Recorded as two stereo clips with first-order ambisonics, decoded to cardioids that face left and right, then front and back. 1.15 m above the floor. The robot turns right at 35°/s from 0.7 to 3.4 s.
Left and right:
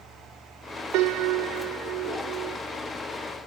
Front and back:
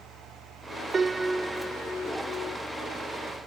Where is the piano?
110° right; by 2.6 s 50° right.